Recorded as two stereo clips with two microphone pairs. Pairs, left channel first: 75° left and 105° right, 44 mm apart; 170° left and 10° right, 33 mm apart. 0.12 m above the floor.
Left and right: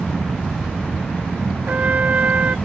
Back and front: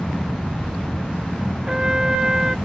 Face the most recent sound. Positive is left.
turn(degrees=-75)